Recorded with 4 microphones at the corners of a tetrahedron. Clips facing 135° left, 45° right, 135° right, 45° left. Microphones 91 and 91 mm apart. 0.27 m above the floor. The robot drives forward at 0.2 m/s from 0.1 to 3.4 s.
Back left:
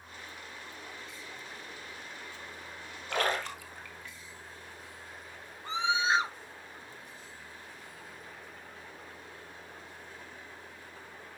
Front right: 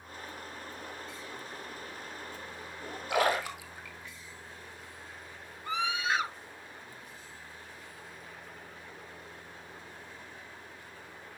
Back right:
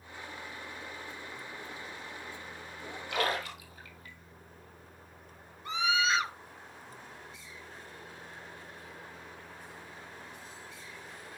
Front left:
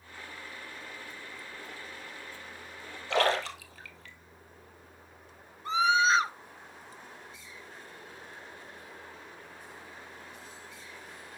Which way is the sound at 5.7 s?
85° left.